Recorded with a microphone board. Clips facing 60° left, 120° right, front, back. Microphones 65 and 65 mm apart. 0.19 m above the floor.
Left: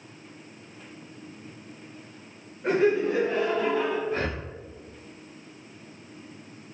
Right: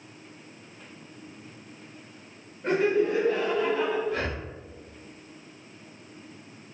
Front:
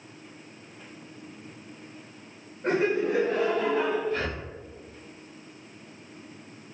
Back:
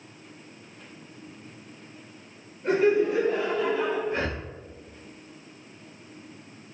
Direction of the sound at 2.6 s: 20° right.